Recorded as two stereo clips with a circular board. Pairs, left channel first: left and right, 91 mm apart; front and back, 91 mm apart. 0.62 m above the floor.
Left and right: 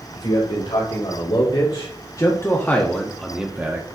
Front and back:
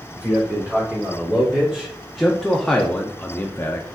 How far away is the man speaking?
About 3 m.